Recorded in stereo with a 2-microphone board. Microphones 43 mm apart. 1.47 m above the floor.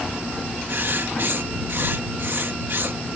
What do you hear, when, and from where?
0.7 s writing: 60° right (ahead or behind)